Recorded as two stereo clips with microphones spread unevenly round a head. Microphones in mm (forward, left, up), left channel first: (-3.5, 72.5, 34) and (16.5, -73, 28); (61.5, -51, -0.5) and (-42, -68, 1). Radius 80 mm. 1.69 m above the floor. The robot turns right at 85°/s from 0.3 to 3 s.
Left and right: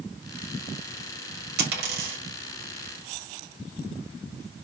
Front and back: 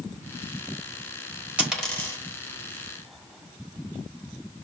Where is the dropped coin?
95° right, 1.8 m; by 2.2 s 45° right, 1.8 m.